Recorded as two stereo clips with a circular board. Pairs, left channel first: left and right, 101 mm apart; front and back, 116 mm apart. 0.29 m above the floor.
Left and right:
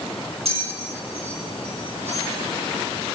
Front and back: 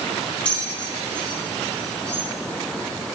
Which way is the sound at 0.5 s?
80° right.